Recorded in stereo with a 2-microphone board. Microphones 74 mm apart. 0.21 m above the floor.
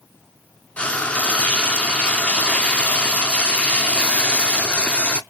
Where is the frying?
15° left (ahead or behind), 0.5 m.